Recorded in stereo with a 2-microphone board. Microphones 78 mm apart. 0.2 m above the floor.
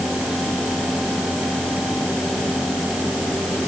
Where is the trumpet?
No trumpet in this recording.